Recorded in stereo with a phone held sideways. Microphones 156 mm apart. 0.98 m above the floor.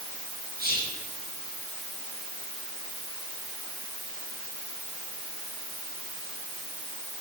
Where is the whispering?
85° right, 7 m.